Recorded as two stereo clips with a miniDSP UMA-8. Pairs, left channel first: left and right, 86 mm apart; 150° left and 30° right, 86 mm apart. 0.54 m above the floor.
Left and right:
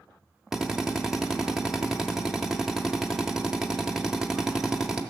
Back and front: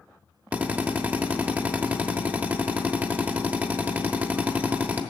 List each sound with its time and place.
0.5 s a drill: 15° right, 0.9 m